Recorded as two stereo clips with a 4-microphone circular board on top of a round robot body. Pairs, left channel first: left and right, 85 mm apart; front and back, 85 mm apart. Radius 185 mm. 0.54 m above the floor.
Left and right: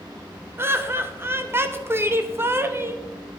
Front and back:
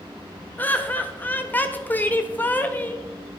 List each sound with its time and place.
0.6 s laughter: 55° right, 1.4 m